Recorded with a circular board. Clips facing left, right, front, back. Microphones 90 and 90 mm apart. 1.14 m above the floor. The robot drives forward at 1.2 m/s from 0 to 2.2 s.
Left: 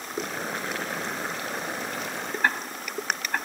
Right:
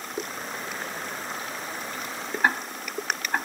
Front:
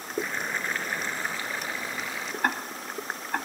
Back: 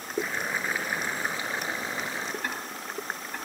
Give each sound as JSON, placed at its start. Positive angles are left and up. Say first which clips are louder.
{"t": 0.2, "sound": "boiling", "louder": "left 4 dB, back 1 dB", "azimuth_deg": 90, "distance_m": 4.5}
{"t": 2.4, "sound": "ticking", "louder": "right 2 dB, front 5 dB", "azimuth_deg": -15, "distance_m": 1.8}